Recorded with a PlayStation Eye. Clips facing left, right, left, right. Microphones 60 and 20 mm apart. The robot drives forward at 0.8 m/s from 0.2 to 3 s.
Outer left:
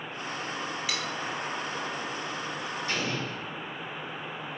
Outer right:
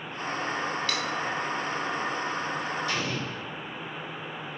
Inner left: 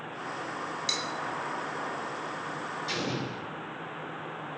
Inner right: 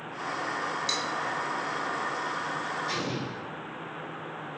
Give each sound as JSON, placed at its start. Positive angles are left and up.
{"t": 0.9, "sound": "cutlery clinking", "side_deg": 10, "distance_m": 1.0}
{"t": 2.9, "sound": "an explosion", "side_deg": 35, "distance_m": 1.9}